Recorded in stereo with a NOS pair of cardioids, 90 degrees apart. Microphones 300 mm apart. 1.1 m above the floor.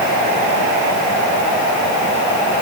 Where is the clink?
I don't hear a clink.